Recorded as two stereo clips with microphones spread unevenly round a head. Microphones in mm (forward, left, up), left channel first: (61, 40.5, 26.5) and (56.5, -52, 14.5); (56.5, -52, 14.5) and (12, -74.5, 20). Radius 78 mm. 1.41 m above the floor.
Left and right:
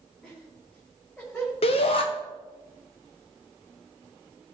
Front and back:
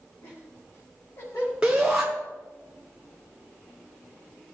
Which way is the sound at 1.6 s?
125° left.